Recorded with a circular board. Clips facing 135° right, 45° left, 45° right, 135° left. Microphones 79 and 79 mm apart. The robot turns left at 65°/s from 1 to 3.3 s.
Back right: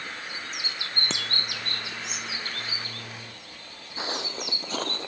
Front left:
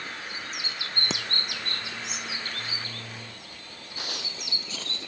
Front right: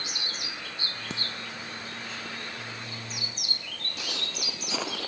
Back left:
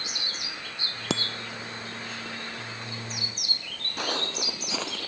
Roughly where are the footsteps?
Behind.